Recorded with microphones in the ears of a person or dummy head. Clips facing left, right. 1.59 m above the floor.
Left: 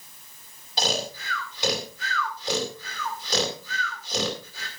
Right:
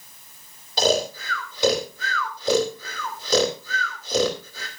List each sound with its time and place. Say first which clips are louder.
0.8 s snoring: right 8 dB; 70° right (ahead or behind), 3 m